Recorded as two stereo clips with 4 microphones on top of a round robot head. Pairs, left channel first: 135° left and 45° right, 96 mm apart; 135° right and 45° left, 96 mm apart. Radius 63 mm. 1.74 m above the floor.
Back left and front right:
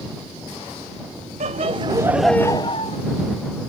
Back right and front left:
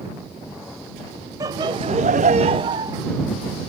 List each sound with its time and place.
1.4 s laughter: 15° right; by 3.0 s 100° left